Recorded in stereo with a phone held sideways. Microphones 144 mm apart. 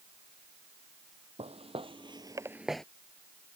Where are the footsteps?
45° right (ahead or behind); by 2.9 s 5° left (ahead or behind).